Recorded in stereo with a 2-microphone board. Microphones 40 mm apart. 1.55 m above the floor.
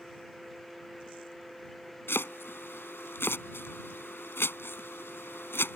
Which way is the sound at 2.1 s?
70° left (ahead or behind).